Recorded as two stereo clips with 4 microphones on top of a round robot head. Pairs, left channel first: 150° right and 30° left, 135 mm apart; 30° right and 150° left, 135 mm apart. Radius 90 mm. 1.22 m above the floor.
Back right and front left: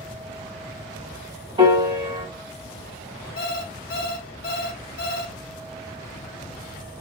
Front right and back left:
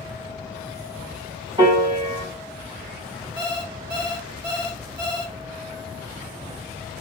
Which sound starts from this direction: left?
A piano, at 1.6 s.